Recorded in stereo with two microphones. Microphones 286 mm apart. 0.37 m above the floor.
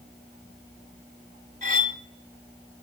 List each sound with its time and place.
1.6 s cutlery clinking: 30° right (ahead or behind), 1.2 m